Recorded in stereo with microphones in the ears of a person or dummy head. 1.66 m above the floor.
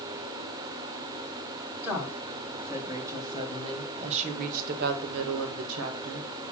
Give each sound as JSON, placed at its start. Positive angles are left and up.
{"t": 1.8, "sound": "a woman speaking", "side_deg": -15, "distance_m": 2.0}